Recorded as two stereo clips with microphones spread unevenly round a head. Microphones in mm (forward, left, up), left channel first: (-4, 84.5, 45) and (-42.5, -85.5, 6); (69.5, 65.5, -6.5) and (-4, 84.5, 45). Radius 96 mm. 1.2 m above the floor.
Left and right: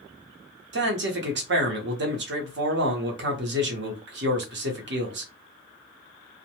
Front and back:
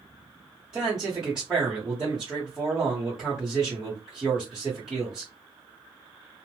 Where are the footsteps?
No footsteps in this recording.